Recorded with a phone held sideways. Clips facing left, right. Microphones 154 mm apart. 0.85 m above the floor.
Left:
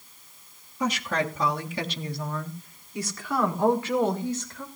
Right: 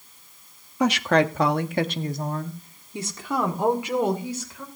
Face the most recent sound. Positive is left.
turn(degrees=-10)  # may be behind; listen again after turning